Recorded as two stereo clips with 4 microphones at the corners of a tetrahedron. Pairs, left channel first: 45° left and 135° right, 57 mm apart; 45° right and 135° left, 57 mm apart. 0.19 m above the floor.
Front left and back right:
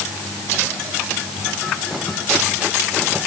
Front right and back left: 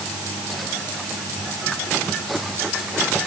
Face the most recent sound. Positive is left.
No sound to turn to.